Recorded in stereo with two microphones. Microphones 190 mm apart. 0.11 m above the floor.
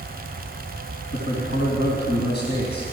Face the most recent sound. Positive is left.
turn(degrees=55)  # may be behind; listen again after turning